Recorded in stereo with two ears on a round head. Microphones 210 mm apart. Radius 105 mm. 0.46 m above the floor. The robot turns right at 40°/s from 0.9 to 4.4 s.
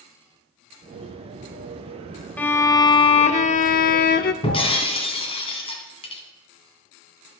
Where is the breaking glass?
25° left (ahead or behind), 2 m.